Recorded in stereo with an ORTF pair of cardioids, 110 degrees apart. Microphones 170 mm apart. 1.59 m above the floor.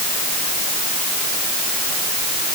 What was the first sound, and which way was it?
Only background noise.